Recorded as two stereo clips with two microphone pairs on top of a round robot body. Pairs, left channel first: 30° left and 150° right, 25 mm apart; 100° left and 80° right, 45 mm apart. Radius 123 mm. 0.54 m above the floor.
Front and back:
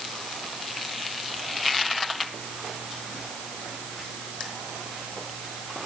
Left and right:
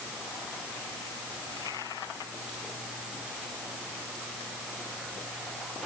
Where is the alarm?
No alarm in this recording.